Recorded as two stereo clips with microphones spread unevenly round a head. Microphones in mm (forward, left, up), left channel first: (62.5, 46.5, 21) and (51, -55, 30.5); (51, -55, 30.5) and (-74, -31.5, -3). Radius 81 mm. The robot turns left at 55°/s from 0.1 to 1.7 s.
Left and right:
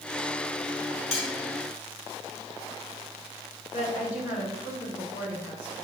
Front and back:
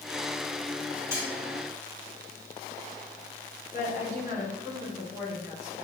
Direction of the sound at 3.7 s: 95° left.